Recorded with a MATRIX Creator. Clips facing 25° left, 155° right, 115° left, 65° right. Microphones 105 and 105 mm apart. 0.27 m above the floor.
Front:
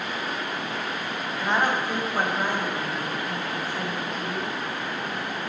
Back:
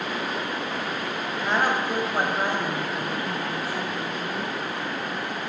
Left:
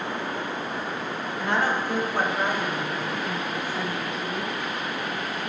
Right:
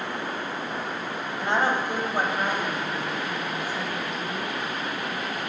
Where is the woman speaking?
60° right, 1.2 m; by 4.5 s 175° left, 2.5 m.